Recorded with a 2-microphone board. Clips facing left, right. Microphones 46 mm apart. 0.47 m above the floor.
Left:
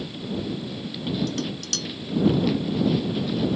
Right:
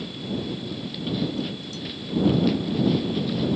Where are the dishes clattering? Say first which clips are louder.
Even; 80° left.